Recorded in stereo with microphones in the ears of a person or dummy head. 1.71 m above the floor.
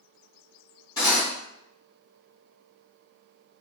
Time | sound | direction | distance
1.0 | cutlery clinking | 20° left (ahead or behind) | 1.4 m